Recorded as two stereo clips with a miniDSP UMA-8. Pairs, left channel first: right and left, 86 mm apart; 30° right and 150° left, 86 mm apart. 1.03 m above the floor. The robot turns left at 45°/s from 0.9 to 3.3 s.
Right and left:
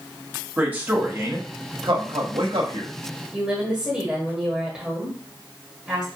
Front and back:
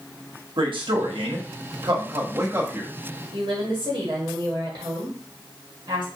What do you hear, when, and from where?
0.6 s a man speaking: 160° left, 1.3 m; by 2.9 s 70° left, 1.3 m
3.3 s a woman speaking: 170° left, 1.7 m